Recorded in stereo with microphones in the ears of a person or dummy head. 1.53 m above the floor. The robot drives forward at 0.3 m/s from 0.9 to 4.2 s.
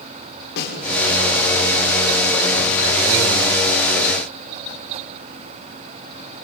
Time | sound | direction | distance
0.6 | a snare drum | 60° left (ahead or behind) | 6 m